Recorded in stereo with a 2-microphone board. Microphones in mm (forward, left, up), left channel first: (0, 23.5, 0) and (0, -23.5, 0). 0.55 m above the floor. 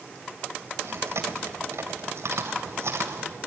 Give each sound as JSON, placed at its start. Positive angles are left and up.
{"t": 0.8, "sound": "chewing", "side_deg": -70, "distance_m": 3.0}